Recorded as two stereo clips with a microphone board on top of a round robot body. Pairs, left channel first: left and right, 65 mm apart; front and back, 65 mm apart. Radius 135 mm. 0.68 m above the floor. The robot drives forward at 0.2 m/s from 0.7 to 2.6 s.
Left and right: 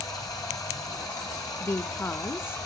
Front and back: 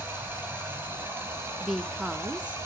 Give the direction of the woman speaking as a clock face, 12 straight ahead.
9 o'clock.